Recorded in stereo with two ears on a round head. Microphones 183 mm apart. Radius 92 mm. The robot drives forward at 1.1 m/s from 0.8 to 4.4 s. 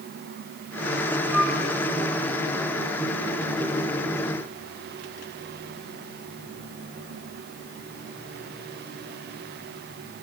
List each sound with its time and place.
1.3 s a flute: 10° right (ahead or behind), 7 m